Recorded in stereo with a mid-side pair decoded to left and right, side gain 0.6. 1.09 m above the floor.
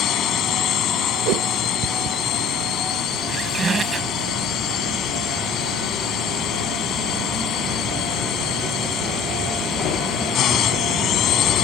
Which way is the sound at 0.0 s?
55° left.